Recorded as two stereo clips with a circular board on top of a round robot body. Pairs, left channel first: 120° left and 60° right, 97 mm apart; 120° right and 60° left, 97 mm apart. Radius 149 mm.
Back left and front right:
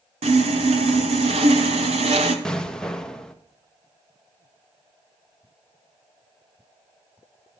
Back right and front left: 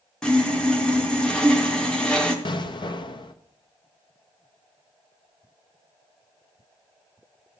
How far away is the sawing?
About 0.8 m.